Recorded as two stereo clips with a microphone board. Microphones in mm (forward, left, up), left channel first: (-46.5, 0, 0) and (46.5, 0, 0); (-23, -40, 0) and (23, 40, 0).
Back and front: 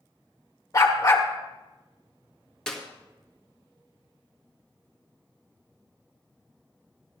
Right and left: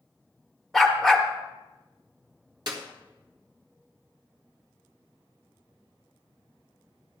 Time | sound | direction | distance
0.7 | a dog barking | 150° left | 1.4 m
2.7 | a clap | 100° left | 1.8 m